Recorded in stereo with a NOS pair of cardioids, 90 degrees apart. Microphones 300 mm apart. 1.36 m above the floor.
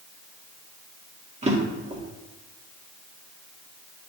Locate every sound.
1.4 s a drawer: 20° right, 2 m